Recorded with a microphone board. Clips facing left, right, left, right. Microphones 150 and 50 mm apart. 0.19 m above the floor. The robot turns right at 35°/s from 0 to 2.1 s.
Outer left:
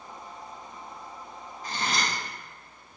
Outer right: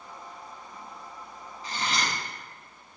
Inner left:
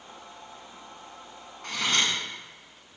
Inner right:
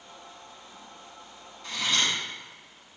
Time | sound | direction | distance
1.6 | cutlery clinking | 50° left (ahead or behind) | 1.2 m